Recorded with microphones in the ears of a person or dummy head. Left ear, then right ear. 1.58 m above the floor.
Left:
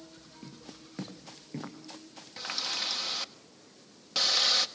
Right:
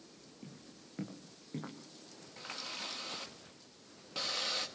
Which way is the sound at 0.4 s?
25° left (ahead or behind).